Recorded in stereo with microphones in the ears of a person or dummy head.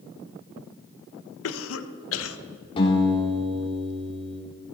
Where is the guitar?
30° left (ahead or behind), 4 m.